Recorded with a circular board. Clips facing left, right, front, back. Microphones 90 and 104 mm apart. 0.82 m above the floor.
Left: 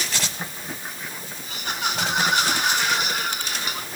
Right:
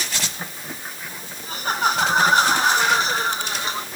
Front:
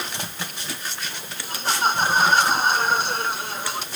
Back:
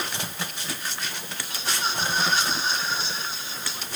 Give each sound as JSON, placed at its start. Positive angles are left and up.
{"t": 1.4, "sound": "laughter", "azimuth_deg": -40}